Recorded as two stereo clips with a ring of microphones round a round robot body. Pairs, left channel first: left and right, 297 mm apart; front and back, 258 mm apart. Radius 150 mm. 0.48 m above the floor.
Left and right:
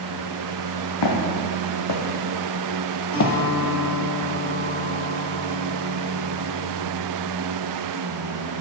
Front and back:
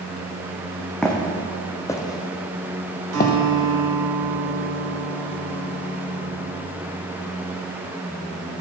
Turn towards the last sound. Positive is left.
turn(degrees=160)